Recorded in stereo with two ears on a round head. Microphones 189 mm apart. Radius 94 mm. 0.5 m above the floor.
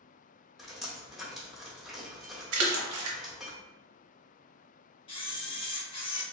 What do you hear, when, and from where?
0.6 s dripping: centre (ahead or behind), 1.2 m
2.5 s a splash: 85° right, 0.6 m
5.1 s a camera shutter: 25° left (ahead or behind), 0.8 m